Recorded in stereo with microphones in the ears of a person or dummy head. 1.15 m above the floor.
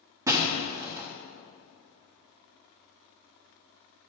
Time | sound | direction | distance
0.3 | breaking glass | 15° right (ahead or behind) | 0.7 m